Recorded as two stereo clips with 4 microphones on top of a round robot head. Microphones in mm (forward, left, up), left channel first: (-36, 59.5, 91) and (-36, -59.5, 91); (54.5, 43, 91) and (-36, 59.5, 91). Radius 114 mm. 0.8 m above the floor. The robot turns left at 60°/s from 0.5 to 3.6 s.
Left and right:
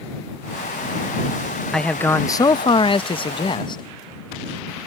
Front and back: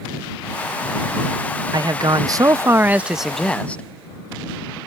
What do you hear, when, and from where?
1.7 s a man speaking: 175° left; by 3.8 s 60° left